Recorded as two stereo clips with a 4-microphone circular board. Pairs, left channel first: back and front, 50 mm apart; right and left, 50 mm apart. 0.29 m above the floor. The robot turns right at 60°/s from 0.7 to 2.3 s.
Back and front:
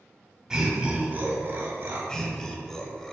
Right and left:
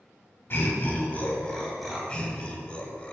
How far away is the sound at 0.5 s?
About 1.8 m.